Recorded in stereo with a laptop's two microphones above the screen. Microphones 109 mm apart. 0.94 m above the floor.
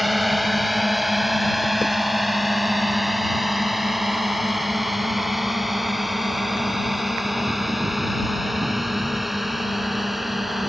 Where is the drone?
Centre (ahead or behind).